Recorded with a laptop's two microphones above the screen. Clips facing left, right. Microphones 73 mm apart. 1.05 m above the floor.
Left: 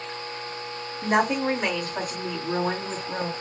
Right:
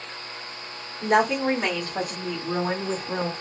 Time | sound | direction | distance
1.0 | a woman speaking | 45° right (ahead or behind) | 2.5 m